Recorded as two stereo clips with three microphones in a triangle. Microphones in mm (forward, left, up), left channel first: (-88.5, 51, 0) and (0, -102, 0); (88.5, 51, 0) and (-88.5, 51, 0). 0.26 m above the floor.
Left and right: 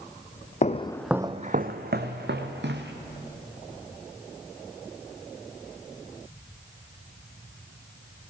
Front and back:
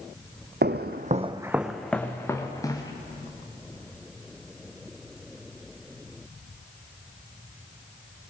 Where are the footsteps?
165° left, 0.7 m; by 2.9 s 70° right, 1.9 m.